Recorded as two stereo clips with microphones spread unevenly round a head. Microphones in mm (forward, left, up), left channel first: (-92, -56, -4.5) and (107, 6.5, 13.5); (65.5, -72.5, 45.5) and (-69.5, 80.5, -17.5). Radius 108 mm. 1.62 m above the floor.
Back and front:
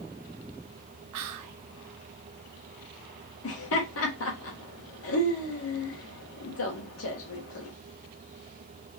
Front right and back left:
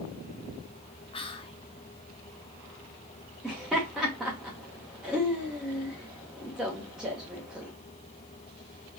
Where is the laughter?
140° right, 0.9 m.